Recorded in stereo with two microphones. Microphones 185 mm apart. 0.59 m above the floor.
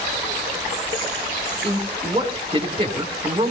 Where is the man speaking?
30° right (ahead or behind), 2 m.